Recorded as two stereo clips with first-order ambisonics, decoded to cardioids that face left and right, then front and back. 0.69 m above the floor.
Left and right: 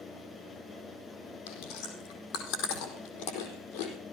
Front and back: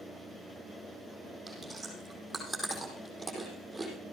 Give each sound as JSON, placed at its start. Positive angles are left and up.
{"t": 1.5, "sound": "chewing", "azimuth_deg": 90, "distance_m": 4.5}